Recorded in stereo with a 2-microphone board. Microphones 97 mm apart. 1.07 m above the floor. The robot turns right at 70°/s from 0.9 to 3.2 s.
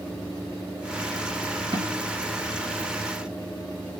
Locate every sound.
1.7 s a snare drum: 60° right (ahead or behind), 1.8 m; by 2.0 s 70° right (ahead or behind), 1.8 m